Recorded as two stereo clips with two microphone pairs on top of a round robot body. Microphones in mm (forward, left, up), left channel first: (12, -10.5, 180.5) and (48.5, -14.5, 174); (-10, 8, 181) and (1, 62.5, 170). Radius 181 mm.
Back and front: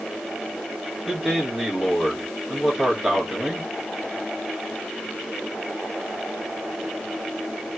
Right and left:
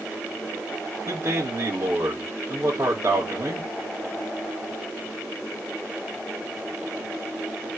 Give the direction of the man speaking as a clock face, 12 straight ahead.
10 o'clock.